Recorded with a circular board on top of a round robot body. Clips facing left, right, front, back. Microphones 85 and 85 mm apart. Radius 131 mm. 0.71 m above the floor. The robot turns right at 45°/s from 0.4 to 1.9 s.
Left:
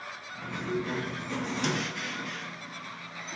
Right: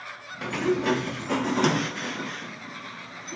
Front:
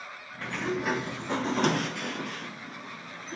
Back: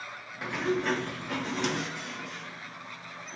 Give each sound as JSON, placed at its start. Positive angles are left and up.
{"t": 0.4, "sound": "a sliding door", "azimuth_deg": -105, "distance_m": 0.7}